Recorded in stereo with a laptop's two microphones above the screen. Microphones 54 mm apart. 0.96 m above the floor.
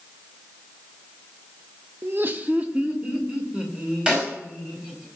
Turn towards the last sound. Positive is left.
turn(degrees=-20)  # may be behind; listen again after turning